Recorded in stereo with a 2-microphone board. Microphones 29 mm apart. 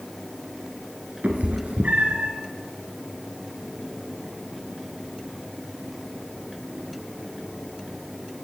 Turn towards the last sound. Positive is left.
turn(degrees=-65)  # may be behind; listen again after turning